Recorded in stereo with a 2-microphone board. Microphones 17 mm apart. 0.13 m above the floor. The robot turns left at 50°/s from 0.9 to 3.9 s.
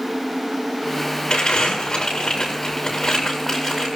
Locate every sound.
1.3 s crumpling: 70° left (ahead or behind), 8 m; by 3.9 s 20° right (ahead or behind), 8 m